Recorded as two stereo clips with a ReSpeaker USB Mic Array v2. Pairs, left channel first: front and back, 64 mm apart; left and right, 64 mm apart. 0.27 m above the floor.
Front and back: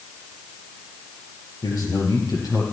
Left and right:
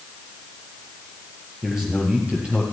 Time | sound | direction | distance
1.6 | a man speaking | 10° right | 5 m